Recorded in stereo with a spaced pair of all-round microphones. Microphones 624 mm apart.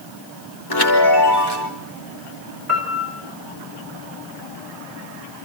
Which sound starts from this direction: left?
A chime, at 0.7 s.